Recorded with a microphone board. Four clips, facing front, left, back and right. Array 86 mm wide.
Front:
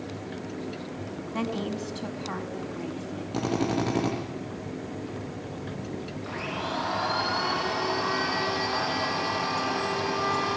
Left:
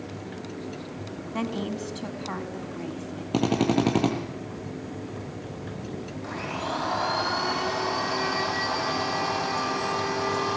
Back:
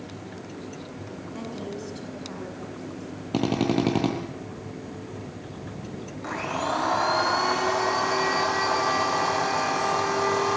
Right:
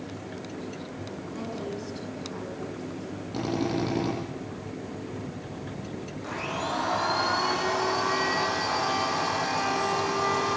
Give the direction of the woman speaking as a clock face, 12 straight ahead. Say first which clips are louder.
Left 5 dB, front 5 dB; 10 o'clock.